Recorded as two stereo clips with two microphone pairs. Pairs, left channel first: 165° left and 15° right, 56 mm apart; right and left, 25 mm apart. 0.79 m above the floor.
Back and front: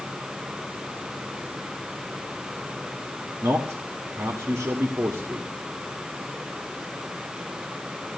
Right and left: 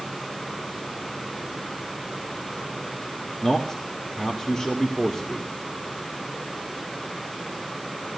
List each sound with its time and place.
3.4 s a man speaking: 25° right, 1.9 m